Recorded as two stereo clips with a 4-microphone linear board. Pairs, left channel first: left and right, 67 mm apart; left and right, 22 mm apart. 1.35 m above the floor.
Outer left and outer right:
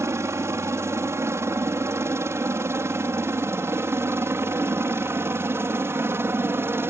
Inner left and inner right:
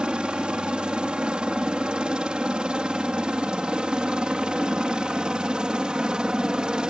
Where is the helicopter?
45° right (ahead or behind); by 6.9 s 35° right (ahead or behind).